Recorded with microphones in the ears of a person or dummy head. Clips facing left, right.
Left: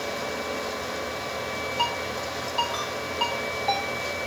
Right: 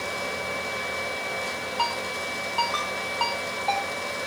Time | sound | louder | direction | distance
1.8 | a ringtone | right 1 dB | 15° left (ahead or behind) | 5 m